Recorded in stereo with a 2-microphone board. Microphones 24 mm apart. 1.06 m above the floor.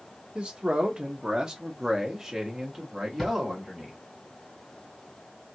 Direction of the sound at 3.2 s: 15° left (ahead or behind).